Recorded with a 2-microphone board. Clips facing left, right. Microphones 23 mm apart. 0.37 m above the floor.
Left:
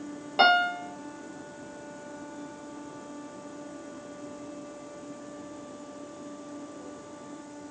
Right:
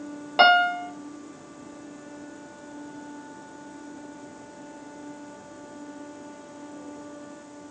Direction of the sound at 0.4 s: 20° right (ahead or behind).